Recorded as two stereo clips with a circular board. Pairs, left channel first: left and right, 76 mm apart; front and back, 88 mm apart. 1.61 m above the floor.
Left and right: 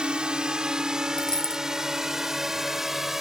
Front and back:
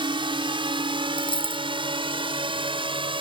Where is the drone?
170° right; by 3.2 s 175° right.